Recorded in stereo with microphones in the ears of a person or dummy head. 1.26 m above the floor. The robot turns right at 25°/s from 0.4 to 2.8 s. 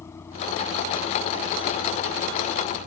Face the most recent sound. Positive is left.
turn(degrees=-135)